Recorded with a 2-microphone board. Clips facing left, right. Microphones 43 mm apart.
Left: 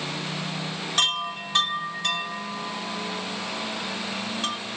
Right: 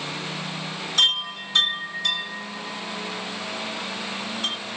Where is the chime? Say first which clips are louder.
Right 3 dB; 45° left (ahead or behind), 3 m.